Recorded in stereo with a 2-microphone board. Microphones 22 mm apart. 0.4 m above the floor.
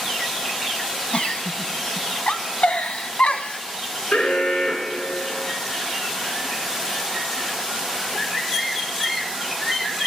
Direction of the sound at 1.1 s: 80° left.